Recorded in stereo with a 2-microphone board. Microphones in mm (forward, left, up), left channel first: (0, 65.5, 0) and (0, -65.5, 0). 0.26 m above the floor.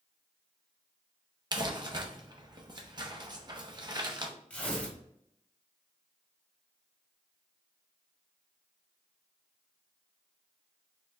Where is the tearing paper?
10° left (ahead or behind), 1.5 m.